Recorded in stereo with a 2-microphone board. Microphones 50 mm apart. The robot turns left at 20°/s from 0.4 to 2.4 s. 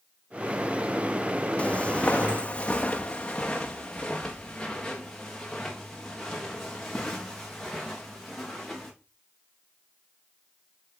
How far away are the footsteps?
About 0.9 m.